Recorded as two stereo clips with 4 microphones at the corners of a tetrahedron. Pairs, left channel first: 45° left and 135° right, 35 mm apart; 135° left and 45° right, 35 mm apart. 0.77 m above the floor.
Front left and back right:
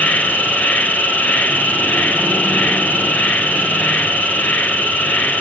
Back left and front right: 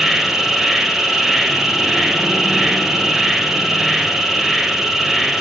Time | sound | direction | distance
0.0 | an insect | 35° left | 1.2 m